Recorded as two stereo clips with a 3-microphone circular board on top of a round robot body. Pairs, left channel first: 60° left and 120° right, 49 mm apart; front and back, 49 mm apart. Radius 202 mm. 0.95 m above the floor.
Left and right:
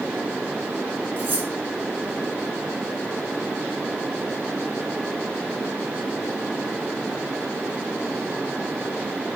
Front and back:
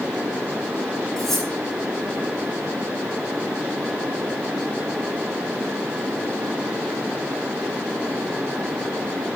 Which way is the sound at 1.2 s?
90° right.